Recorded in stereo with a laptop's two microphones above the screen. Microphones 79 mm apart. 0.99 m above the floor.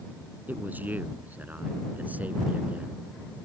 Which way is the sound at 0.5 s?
25° right (ahead or behind).